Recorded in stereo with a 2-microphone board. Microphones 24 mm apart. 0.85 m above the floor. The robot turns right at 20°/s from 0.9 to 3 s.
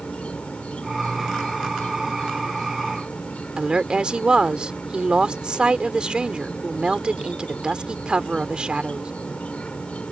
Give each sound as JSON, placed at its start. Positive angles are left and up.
{"t": 0.0, "sound": "an insect", "azimuth_deg": 70}
{"t": 3.6, "sound": "a woman speaking", "side_deg": -40}